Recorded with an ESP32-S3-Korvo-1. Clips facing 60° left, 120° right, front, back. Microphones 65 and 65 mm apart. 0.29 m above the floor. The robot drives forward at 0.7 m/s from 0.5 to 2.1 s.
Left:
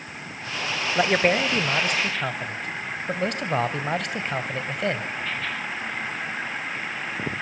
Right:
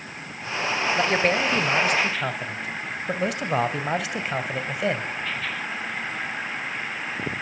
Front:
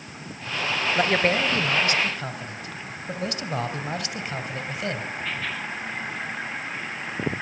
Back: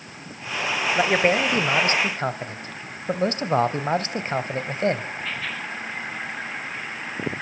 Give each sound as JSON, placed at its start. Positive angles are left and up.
{"t": 0.9, "sound": "a man speaking", "azimuth_deg": 105, "distance_m": 1.1}